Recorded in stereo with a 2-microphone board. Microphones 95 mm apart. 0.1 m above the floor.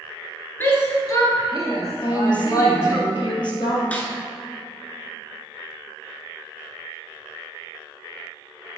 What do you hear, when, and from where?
0.6 s a shout: 25° left (ahead or behind), 1.3 m; by 3.0 s 35° left (ahead or behind), 4 m
2.0 s a woman speaking: 55° left (ahead or behind), 2.0 m
3.9 s a snare drum: 15° left (ahead or behind), 1.2 m